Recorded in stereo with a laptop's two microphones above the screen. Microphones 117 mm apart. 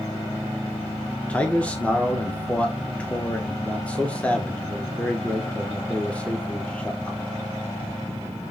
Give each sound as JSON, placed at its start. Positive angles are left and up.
{"t": 1.3, "sound": "a man speaking", "side_deg": 10, "distance_m": 0.8}